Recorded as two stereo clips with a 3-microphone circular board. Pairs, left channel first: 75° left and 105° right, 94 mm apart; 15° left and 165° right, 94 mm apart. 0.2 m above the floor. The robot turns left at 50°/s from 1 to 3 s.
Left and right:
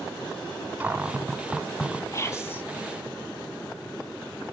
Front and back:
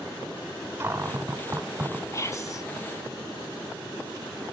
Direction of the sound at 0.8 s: 155° right.